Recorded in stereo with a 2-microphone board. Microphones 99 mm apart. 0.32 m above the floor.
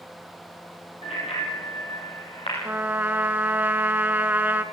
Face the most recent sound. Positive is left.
turn(degrees=-20)  # may be behind; listen again after turning